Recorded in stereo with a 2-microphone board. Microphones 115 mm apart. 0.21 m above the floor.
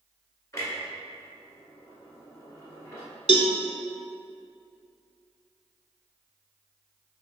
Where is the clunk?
25° left (ahead or behind), 1.7 m.